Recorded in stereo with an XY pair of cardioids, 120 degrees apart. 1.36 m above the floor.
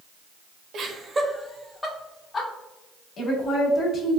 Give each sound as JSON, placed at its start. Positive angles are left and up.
{"t": 0.7, "sound": "laughter", "azimuth_deg": -55, "distance_m": 0.8}
{"t": 3.2, "sound": "a woman speaking", "azimuth_deg": 50, "distance_m": 1.6}